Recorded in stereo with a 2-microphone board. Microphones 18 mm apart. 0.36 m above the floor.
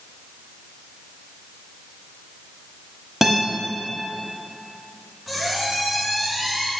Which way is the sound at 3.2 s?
15° right (ahead or behind).